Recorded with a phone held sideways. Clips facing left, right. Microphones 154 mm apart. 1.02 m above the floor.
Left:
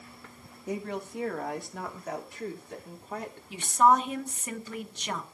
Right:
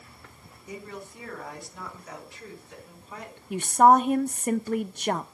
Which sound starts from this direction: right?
A woman speaking, at 3.5 s.